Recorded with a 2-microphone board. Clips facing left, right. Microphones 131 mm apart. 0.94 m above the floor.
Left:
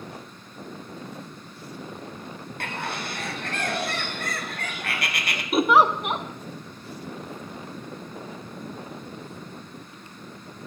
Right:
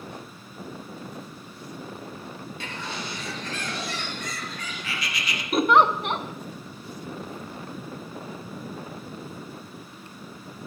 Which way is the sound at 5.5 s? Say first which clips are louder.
Even; 5° left (ahead or behind).